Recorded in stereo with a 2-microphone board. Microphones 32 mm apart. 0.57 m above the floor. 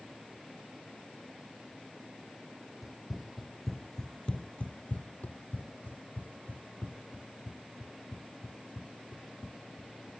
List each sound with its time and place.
2.8 s running footsteps: 10° right (ahead or behind); by 10.1 s 45° left (ahead or behind)